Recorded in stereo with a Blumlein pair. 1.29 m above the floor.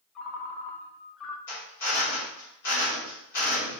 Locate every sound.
0.1 s a ringtone: 25° left, 1.3 m
1.5 s a drill: 55° left, 3 m